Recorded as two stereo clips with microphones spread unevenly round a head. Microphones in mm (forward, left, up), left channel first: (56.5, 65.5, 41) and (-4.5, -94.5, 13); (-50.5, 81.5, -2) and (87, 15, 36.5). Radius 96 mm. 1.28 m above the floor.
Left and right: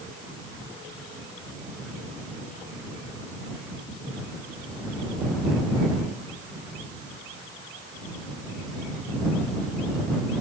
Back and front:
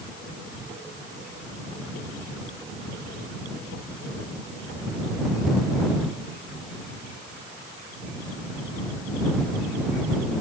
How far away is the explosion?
No explosion in this recording.